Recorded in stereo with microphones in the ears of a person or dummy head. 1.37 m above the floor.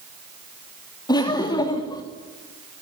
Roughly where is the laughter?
Left.